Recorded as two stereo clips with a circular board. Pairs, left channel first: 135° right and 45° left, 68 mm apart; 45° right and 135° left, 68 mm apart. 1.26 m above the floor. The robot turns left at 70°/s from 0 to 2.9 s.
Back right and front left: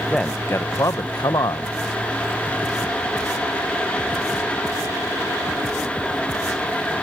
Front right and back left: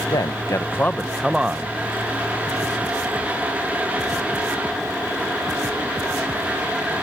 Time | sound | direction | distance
0.1 | a man speaking | 55° right | ?